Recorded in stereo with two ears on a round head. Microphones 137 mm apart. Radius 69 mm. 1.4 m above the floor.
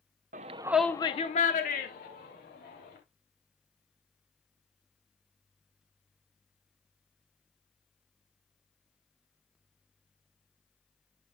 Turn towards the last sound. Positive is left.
turn(degrees=70)  # may be behind; listen again after turning